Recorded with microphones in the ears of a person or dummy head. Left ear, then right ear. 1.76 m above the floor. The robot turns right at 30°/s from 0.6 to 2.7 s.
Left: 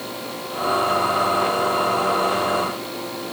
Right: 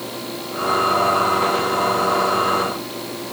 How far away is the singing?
No singing in this recording.